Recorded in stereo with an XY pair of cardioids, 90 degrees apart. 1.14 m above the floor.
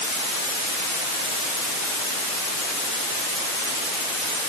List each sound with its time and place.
Only background noise.